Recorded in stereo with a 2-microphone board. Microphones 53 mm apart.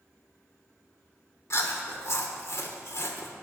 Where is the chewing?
65° left (ahead or behind), 1.3 m.